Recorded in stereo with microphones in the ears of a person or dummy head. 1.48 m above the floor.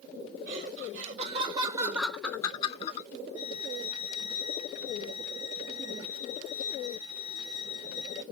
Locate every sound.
0.5 s laughter: 50° right (ahead or behind), 1.0 m; by 3.1 s 50° left (ahead or behind), 0.6 m
3.4 s a violin: 15° right (ahead or behind), 1.4 m